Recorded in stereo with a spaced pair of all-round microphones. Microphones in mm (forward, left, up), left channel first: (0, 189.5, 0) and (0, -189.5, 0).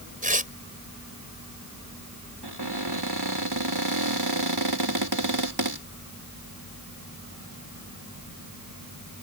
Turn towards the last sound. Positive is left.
turn(degrees=-85)